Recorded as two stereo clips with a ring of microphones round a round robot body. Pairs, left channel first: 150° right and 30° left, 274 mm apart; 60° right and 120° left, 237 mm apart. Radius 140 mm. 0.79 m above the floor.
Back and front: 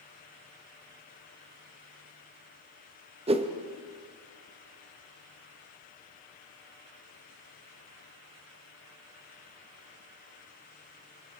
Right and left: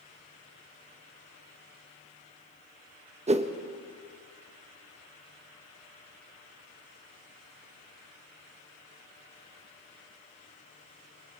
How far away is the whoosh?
About 1.1 m.